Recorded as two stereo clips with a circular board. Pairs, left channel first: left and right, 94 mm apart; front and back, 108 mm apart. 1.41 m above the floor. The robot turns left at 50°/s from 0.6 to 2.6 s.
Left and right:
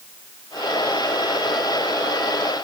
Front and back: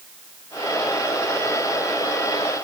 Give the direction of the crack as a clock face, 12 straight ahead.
I don't hear a crack.